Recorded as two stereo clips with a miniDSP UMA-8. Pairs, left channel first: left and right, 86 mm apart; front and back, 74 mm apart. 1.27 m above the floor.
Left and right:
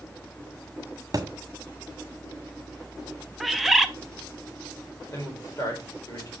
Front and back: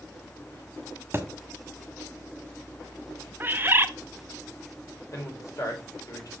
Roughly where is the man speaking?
Ahead left.